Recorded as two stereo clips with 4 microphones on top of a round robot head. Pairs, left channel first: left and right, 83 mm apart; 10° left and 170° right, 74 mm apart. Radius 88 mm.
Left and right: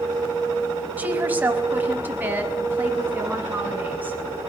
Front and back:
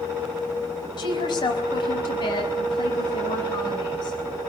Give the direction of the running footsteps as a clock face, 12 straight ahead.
I don't hear running footsteps.